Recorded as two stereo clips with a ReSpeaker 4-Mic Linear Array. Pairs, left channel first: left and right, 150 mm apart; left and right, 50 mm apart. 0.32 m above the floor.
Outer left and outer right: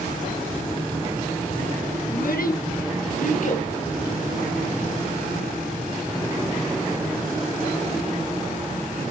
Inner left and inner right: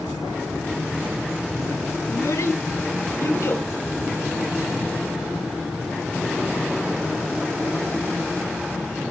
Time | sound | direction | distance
2.1 | a child speaking | 75° left (ahead or behind) | 5 m